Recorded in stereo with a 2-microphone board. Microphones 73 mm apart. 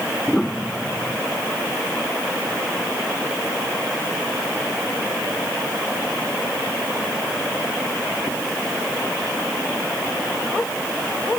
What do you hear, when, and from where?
0.3 s a piano: 5° left (ahead or behind)